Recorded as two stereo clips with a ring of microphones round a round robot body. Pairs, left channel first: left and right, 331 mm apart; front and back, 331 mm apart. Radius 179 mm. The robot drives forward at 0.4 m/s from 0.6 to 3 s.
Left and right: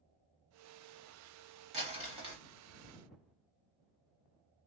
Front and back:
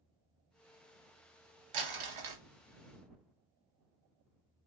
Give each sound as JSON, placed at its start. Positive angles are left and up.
{"t": 1.7, "sound": "crumpling", "azimuth_deg": -160, "distance_m": 1.0}